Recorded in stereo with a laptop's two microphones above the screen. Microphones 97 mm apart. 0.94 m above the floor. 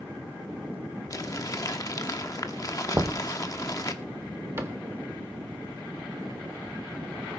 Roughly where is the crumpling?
Left.